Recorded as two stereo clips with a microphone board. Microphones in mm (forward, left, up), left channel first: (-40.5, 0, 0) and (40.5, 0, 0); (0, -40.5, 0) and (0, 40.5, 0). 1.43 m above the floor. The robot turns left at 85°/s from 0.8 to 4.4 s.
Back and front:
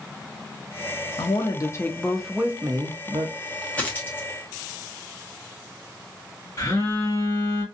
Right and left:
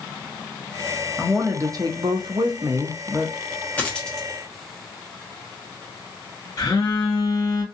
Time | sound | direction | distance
1.2 | a woman speaking | 175° left | 0.7 m
3.8 | a dropped coin | 140° right | 0.9 m
6.6 | a phone buzzing | 135° right | 1.4 m